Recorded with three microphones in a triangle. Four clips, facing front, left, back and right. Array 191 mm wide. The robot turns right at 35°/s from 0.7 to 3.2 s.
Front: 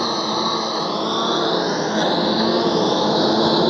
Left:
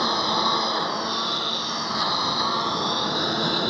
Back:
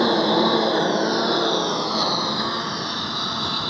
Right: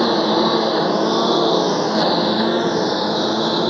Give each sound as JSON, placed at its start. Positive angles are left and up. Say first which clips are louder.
{"t": 0.0, "sound": "a lawn mower", "louder": "right 8 dB, back 3 dB", "azimuth_deg": -115}